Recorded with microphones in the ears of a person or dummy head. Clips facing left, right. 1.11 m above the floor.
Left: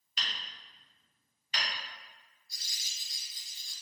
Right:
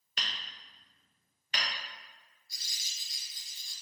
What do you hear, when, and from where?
0.2 s hammering: 60° right (ahead or behind), 0.7 m
2.5 s crumpling: 45° right (ahead or behind), 1.4 m